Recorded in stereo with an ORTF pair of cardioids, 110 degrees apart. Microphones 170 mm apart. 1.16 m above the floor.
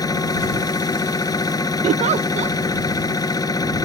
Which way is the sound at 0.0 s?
20° left.